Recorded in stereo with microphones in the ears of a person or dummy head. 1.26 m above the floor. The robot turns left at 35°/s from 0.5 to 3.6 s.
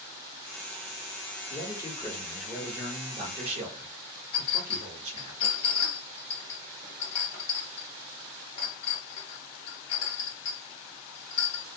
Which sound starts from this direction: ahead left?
A man speaking, at 1.5 s.